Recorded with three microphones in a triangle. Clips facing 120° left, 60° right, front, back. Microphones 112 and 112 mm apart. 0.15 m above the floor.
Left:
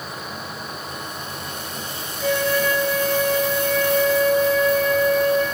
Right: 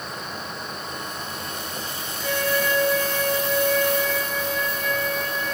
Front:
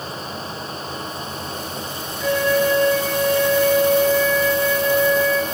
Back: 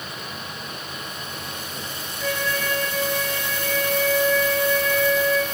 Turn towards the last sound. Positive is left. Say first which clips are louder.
# left 4 dB, front 9 dB
turn(degrees=100)